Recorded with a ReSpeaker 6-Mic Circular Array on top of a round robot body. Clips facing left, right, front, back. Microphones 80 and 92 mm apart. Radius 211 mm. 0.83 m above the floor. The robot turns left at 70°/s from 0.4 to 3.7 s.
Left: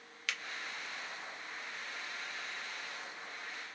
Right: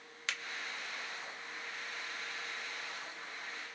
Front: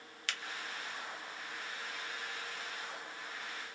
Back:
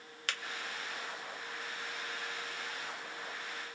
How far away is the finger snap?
About 1.0 m.